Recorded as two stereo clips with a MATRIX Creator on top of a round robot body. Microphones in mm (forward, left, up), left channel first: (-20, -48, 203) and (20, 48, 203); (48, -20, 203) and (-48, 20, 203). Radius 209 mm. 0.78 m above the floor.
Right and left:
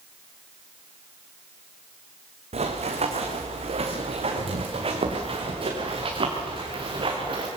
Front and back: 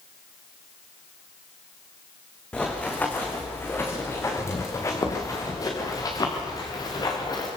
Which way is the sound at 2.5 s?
60° left.